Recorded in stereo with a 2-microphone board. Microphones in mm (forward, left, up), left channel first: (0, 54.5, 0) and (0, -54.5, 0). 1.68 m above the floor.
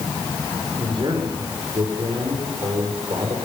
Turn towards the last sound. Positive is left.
turn(degrees=-50)  # may be behind; listen again after turning